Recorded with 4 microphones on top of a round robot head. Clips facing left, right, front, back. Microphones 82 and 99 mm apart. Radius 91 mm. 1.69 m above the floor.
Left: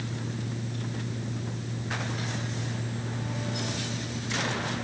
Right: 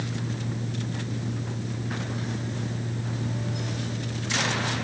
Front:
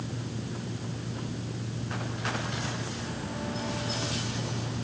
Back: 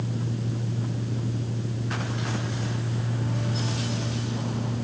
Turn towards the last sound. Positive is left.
No sound to turn to.